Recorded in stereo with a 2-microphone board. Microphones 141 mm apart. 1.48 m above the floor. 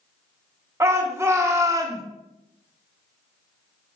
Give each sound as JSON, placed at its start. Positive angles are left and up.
{"t": 0.8, "sound": "a shout", "side_deg": -20, "distance_m": 1.2}